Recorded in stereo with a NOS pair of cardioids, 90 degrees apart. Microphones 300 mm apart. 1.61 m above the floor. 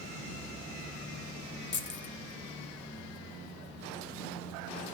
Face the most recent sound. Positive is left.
turn(degrees=40)